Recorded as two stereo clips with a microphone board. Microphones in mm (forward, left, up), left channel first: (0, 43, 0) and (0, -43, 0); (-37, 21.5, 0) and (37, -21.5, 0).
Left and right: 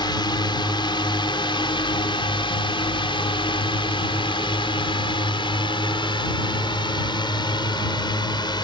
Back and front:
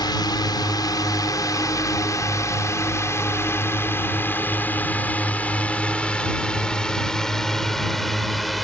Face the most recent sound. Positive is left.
turn(degrees=60)